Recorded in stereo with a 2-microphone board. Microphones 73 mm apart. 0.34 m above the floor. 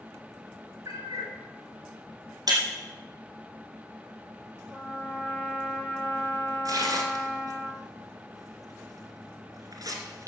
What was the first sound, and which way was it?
A cat meowing, 45° right (ahead or behind).